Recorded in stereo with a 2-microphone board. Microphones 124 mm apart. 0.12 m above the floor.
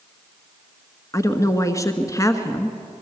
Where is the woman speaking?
25° left (ahead or behind), 1.2 m.